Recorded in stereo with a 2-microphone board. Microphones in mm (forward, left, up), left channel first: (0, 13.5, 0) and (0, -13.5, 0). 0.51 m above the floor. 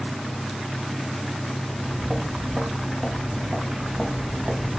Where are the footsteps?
25° right (ahead or behind), 5.5 m.